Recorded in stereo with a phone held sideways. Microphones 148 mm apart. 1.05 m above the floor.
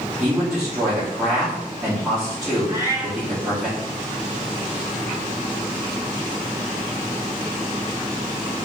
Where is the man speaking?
Centre (ahead or behind), 2 m.